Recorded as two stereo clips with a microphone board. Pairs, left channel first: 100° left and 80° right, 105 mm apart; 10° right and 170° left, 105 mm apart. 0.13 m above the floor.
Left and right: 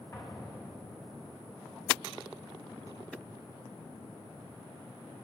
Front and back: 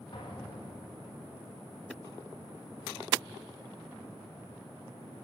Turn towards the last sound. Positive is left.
turn(degrees=35)